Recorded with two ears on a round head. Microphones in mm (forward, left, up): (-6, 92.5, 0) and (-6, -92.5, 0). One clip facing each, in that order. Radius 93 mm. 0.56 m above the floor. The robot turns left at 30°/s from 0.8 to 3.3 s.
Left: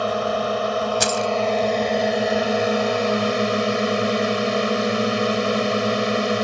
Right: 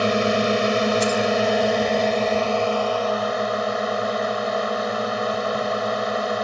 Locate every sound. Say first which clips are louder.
0.0 s a drone: right 2 dB; 145° right; by 6.5 s 140° left
1.0 s keys jangling: right 2 dB; 75° left (ahead or behind); by 1.3 s 70° left (ahead or behind)